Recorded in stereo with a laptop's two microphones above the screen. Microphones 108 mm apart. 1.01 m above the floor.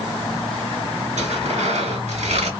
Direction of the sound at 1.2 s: 75° right (ahead or behind).